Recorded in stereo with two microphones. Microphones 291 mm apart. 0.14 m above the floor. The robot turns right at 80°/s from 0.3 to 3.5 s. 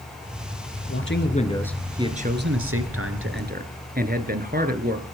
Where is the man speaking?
110° left, 2.5 m; by 5.0 s 40° right, 2.5 m.